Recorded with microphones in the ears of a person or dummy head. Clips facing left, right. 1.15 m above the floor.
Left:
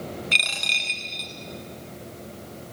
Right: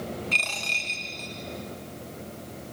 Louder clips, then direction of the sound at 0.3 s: Even; 20° left (ahead or behind).